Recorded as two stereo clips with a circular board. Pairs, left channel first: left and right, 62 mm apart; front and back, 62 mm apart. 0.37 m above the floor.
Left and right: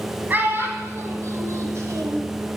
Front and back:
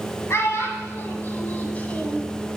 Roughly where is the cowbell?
No cowbell in this recording.